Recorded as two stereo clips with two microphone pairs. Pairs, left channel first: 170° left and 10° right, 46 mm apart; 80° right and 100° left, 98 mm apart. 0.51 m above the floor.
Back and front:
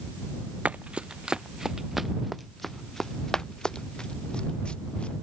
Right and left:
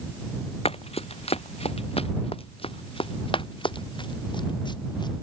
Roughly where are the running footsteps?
Right.